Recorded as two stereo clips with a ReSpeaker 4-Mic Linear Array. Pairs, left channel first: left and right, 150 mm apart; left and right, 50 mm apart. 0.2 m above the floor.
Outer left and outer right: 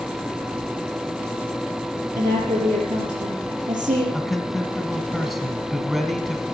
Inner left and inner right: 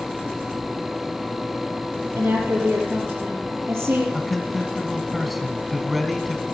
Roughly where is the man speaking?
Centre.